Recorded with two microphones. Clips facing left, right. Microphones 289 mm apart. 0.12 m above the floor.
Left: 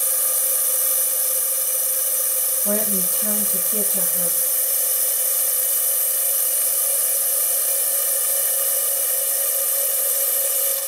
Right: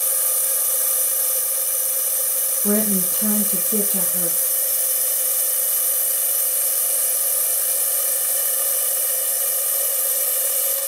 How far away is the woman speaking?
About 3.5 m.